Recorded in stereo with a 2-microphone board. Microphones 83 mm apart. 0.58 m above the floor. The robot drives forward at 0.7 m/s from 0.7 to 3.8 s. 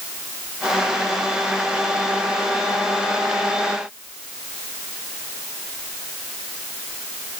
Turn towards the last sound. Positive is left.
No sound to turn to.